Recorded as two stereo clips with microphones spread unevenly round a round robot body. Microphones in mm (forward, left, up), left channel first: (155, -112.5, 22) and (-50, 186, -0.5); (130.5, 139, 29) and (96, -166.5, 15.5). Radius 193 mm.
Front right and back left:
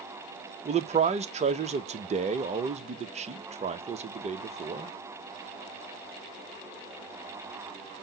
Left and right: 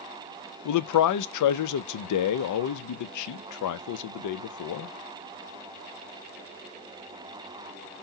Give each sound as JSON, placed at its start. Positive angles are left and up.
{"t": 0.7, "sound": "a man speaking", "azimuth_deg": 55, "distance_m": 0.5}